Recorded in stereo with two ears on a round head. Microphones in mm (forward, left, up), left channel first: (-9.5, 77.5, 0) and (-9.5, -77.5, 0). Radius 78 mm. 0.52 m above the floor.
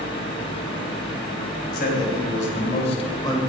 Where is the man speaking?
55° left (ahead or behind), 3.5 m; by 3.4 s 20° left (ahead or behind), 2 m.